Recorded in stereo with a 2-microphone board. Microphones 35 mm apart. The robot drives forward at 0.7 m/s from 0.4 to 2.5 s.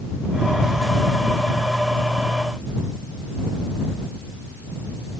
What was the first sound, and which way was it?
Only background noise.